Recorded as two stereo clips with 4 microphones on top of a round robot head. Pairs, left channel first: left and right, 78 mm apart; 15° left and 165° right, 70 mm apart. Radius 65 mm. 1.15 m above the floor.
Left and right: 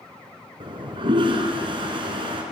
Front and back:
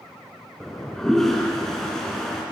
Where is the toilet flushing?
70° right, 3.5 m.